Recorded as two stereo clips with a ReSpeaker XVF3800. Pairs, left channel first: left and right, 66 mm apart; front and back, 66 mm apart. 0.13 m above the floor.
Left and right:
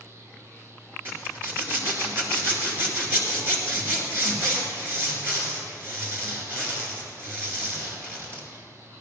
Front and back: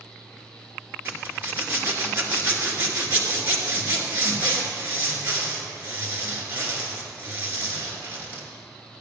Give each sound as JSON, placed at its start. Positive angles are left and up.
{"t": 1.1, "sound": "a zipper", "azimuth_deg": -130, "distance_m": 2.5}